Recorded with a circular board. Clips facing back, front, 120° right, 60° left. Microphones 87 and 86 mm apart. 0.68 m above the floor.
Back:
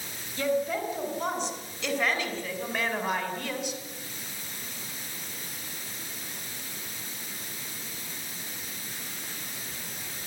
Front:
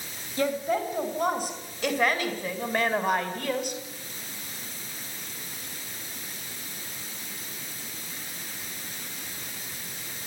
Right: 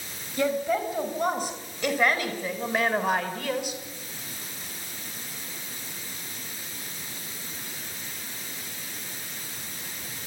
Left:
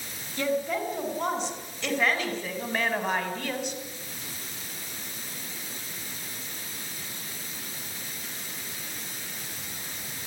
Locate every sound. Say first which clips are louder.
0.4 s a woman speaking: front 1 dB, right 2 dB; 40° right, 5.5 m; by 3.8 s 35° right, 4 m